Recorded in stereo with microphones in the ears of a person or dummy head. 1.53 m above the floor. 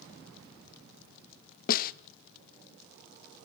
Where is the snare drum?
45° left (ahead or behind), 0.7 m.